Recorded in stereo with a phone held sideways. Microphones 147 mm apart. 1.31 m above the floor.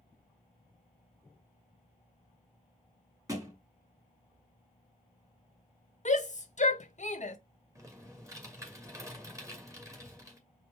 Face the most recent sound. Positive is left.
turn(degrees=-20)  # may be behind; listen again after turning